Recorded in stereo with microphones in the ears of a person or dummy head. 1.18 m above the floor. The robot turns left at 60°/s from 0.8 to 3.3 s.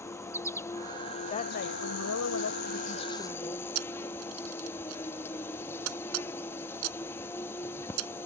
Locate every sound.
0.0 s an insect: 170° left; by 8.3 s 20° left
1.3 s a woman speaking: 150° left; by 3.6 s 30° left
3.8 s a camera shutter: 85° right